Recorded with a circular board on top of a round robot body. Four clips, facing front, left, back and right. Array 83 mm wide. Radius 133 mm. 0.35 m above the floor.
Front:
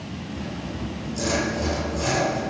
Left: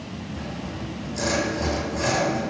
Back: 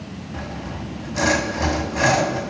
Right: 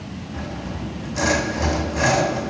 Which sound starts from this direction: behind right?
Sawing, at 0.3 s.